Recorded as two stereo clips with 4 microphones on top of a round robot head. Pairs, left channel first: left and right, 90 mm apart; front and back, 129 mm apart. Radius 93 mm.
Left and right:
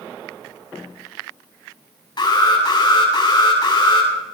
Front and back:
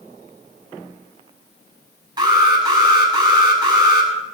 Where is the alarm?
125° left, 7 m.